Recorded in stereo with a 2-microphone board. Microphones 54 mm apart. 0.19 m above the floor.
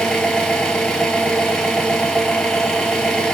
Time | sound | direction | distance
0.0 | an engine running | 15° left (ahead or behind) | 0.9 m